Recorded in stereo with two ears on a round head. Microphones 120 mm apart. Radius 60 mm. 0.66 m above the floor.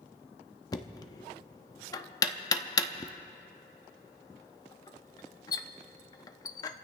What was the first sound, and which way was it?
Knocking, 30° left (ahead or behind).